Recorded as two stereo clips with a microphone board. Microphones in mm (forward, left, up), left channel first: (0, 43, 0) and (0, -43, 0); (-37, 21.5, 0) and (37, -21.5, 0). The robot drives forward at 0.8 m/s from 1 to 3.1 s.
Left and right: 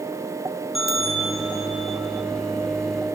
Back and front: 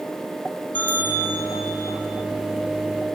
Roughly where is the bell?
Behind.